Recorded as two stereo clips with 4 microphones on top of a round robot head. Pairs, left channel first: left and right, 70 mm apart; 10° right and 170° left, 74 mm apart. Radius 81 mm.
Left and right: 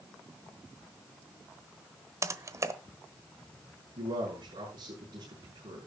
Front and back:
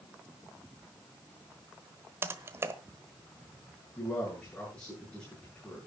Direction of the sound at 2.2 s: 130° right.